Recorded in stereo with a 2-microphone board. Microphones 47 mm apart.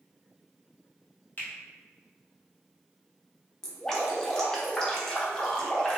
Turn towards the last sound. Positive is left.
turn(degrees=10)  # may be behind; listen again after turning